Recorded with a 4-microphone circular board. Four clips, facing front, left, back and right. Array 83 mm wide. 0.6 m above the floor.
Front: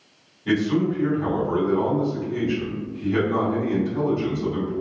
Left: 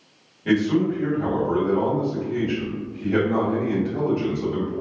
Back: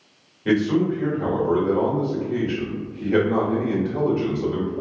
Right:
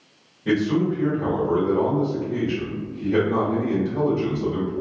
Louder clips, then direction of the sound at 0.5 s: Left 1 dB, back 2 dB; 165° left.